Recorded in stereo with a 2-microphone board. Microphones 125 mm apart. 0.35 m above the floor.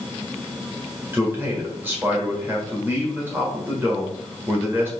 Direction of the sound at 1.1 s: 15° right (ahead or behind).